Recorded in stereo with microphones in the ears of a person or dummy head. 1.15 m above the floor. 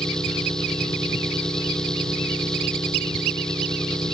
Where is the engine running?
10° left (ahead or behind).